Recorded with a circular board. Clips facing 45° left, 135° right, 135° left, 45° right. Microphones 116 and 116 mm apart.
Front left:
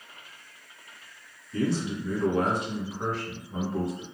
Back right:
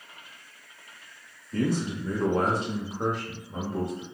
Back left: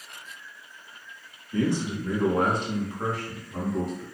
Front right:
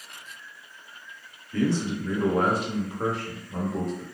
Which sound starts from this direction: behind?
A man speaking, at 1.5 s.